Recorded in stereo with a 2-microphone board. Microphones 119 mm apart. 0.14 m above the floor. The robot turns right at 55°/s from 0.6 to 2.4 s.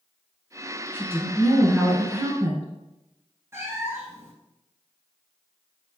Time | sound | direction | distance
0.9 | a woman speaking | 150° left | 1.4 m
3.5 | a cat meowing | 25° right (ahead or behind) | 0.8 m